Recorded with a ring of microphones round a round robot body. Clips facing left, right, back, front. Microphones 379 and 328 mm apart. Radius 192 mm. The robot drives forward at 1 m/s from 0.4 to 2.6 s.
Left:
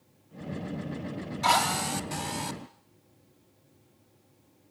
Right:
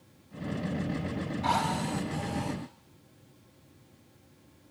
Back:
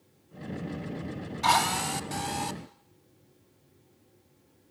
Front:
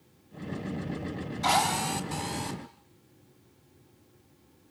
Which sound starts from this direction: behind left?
A drill, at 1.4 s.